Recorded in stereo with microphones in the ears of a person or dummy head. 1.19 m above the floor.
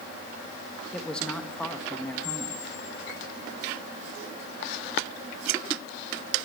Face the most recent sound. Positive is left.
turn(degrees=80)